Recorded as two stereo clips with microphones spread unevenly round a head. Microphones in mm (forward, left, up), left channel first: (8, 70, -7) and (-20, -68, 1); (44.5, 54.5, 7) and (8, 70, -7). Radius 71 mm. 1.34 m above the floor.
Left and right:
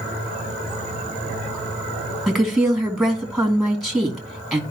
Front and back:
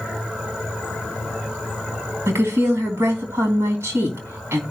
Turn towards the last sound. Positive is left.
turn(degrees=170)